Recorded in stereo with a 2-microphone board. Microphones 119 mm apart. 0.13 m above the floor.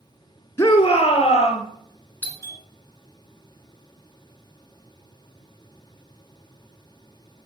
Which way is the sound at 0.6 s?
25° left (ahead or behind).